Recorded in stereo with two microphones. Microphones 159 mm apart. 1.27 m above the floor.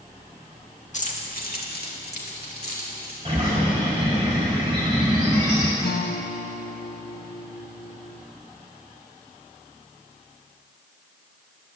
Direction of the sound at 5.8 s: 80° left.